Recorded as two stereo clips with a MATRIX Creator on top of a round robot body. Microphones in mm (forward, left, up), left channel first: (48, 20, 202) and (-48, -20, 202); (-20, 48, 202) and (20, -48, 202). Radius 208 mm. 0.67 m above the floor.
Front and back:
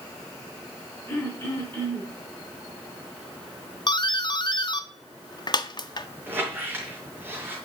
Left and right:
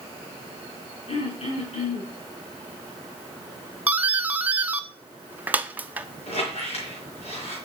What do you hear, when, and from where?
1.1 s throat clearing: 95° left, 5 m
3.9 s a doorbell: straight ahead, 1.1 m
6.3 s a squeak: 130° left, 5 m